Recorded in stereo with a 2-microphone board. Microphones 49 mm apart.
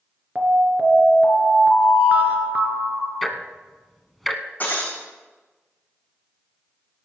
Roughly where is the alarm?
Right.